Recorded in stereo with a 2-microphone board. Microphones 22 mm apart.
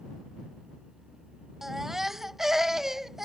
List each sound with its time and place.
1.6 s a baby crying: 20° right (ahead or behind)